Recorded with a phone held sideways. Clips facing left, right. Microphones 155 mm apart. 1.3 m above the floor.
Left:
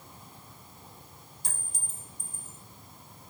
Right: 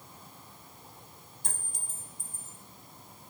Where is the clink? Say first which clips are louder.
Right 1 dB; 55° right (ahead or behind), 2 m.